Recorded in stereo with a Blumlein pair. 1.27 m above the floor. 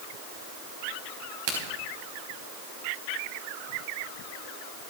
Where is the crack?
45° right, 5 m.